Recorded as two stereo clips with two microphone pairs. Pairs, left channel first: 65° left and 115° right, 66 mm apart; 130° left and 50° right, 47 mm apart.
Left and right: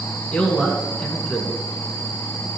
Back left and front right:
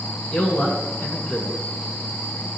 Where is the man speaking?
135° left, 1.9 m.